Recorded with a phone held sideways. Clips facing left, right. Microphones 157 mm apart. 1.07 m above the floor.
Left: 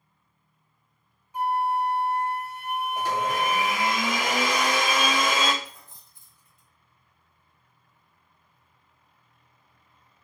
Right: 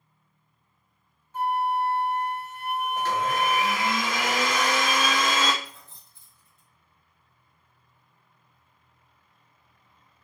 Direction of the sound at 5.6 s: 15° left (ahead or behind).